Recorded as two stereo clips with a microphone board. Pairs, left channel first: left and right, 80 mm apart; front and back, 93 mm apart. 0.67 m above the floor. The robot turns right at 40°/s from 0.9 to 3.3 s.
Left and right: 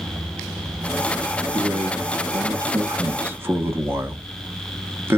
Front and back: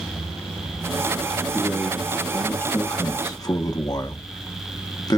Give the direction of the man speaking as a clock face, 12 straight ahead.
4 o'clock.